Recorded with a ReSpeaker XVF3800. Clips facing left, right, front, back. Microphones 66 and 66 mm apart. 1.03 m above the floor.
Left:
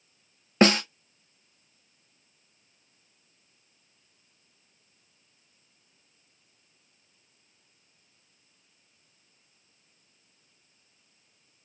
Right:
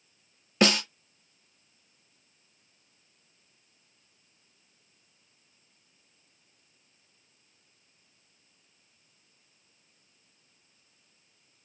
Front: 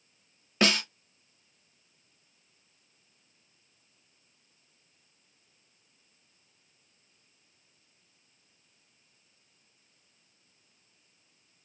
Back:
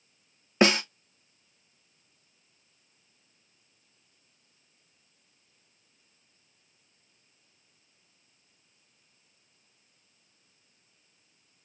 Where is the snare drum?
125° left, 0.9 m.